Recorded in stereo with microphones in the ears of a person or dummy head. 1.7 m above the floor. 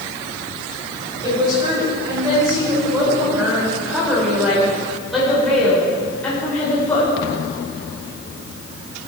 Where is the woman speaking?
15° right (ahead or behind), 6.5 m; by 7.1 s 20° left (ahead or behind), 5.5 m.